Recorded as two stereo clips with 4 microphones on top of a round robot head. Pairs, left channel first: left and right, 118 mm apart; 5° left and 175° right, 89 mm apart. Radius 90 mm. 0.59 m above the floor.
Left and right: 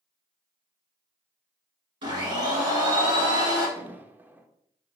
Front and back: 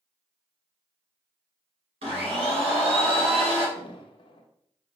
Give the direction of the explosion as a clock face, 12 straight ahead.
1 o'clock.